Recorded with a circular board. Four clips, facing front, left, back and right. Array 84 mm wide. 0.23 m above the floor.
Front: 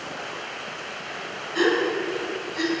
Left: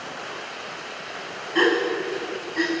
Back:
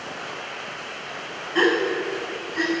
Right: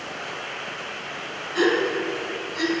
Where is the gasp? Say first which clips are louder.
Even, back 1 dB; 130° left, 1.5 m.